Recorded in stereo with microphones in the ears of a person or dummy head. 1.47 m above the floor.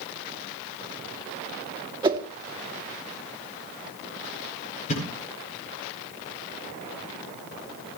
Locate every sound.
2.0 s a whoosh: 25° right (ahead or behind), 1.8 m
4.9 s a thud: 40° left (ahead or behind), 8 m